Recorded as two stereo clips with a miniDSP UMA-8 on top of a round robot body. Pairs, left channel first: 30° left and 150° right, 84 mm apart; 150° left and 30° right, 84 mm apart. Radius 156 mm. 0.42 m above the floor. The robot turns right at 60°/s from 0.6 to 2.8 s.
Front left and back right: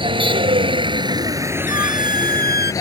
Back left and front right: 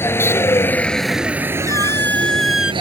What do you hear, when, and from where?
0.0 s a vehicle: 150° right; by 2.8 s 20° right
1.7 s a squeak: 170° right; by 2.7 s 105° right